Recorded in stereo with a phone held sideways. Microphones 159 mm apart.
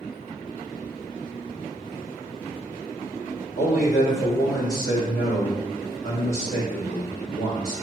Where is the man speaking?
55° left (ahead or behind), 1.5 m.